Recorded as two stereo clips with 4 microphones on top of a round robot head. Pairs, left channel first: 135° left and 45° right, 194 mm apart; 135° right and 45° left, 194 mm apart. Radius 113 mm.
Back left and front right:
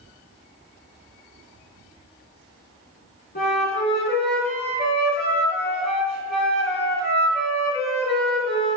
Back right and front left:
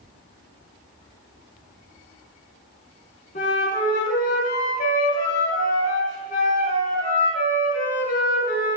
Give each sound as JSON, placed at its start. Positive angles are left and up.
{"t": 3.4, "sound": "a flute", "azimuth_deg": 175, "distance_m": 4.0}